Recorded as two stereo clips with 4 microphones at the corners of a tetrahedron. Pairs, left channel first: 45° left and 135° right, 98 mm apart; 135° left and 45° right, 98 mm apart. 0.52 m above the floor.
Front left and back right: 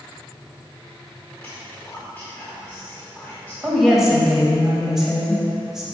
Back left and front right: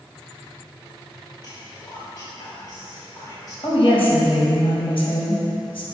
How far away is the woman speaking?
About 3 m.